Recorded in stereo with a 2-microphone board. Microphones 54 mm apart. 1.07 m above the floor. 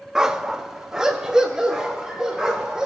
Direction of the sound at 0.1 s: 10° right (ahead or behind).